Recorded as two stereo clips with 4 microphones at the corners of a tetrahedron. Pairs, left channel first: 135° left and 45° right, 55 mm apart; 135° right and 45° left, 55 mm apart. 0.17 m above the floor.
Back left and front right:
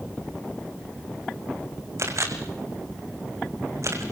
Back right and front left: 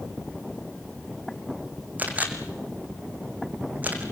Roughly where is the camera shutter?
Ahead.